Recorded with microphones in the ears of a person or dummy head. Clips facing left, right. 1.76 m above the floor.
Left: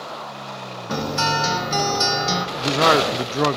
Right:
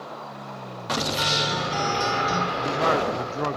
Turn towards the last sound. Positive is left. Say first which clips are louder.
# left 7 dB
turn(degrees=55)  # may be behind; listen again after turning